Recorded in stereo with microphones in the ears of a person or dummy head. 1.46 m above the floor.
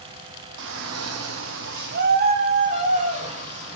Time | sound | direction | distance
0.6 | a shout | 60° right (ahead or behind) | 0.7 m